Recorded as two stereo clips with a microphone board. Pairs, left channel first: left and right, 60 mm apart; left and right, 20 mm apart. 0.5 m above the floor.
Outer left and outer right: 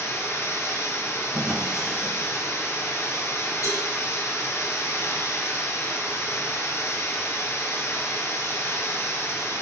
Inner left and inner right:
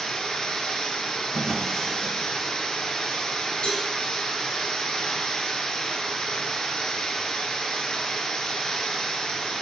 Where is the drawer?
5° left (ahead or behind), 3.5 m.